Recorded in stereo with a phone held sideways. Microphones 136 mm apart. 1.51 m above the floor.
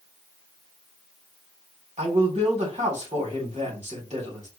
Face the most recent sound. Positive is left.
turn(degrees=-55)  # may be behind; listen again after turning